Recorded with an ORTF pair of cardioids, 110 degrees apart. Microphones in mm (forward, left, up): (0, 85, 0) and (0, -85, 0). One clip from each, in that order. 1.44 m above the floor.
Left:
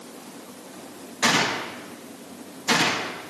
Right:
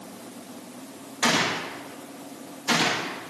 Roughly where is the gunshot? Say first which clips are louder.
Left 2 dB; ahead.